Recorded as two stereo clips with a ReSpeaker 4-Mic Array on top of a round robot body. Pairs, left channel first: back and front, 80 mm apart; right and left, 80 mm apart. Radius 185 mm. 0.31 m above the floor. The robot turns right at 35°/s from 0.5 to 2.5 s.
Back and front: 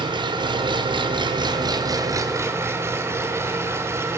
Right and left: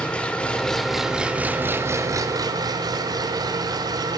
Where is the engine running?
15° right, 0.9 m; by 4.2 s 55° left, 0.9 m.